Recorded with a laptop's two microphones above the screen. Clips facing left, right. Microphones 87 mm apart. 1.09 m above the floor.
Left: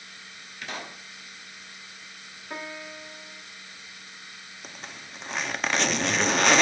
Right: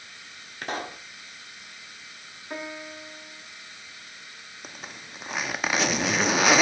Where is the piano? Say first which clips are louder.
Right 1 dB; 5° right (ahead or behind), 1.7 m.